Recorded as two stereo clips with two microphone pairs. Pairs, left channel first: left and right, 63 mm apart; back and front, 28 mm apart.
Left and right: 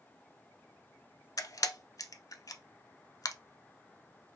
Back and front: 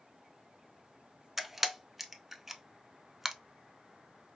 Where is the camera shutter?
80° left, 0.5 m.